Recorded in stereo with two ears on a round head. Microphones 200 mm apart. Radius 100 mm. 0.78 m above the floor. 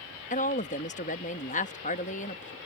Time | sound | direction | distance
0.3 | a woman speaking | 35° left (ahead or behind) | ?